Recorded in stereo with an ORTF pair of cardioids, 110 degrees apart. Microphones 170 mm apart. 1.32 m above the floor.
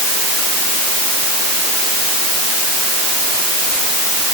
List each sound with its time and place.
Only background noise.